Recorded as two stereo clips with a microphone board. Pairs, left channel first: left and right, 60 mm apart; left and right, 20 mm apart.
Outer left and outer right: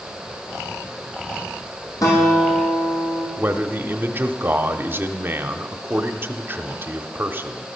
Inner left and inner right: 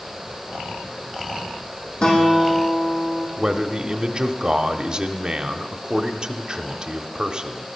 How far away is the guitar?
About 6 m.